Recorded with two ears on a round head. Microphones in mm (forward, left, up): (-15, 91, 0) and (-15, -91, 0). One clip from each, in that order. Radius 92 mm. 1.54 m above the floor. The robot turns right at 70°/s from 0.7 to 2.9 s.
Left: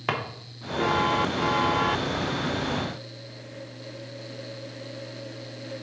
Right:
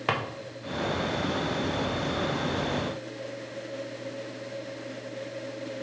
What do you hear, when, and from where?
0.1 s a drawer: centre (ahead or behind), 0.8 m